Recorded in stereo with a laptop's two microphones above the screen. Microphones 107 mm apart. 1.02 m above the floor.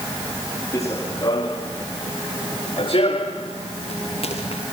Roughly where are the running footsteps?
Left.